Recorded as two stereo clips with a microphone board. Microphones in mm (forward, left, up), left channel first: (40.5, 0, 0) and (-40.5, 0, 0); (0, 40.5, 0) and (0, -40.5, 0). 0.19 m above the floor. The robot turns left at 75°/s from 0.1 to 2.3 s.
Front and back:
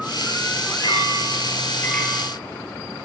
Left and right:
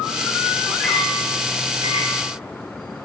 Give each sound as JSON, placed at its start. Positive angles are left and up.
{"t": 0.8, "sound": "a clink", "azimuth_deg": 15, "distance_m": 3.0}